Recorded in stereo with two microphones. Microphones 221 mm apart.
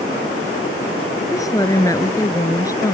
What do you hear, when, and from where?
1.3 s a woman speaking: 15° left (ahead or behind)